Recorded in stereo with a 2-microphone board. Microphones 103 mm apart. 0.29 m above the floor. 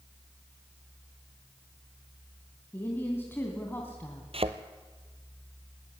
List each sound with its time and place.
2.7 s a woman speaking: 20° left (ahead or behind), 2.5 m
4.3 s a thud: 65° right (ahead or behind), 1.1 m